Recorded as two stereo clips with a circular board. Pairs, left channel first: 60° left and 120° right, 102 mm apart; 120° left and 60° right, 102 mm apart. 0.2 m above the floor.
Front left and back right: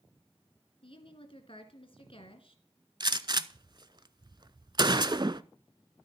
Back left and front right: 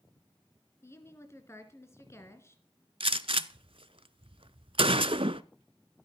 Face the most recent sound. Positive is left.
turn(degrees=-80)